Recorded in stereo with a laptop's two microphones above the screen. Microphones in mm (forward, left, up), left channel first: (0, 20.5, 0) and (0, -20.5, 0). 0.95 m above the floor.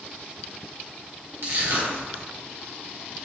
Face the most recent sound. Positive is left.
turn(degrees=-65)  # may be behind; listen again after turning